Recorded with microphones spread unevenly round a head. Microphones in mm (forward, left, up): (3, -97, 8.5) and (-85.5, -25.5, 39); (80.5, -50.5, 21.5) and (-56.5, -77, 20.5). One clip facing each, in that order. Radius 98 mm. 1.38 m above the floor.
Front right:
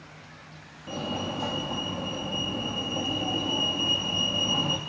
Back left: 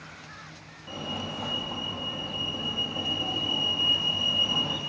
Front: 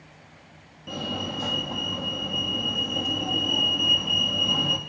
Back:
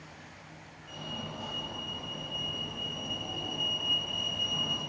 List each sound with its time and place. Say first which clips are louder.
0.9 s a fire alarm: front right 4 dB, front 10 dB; 30° left, 4 m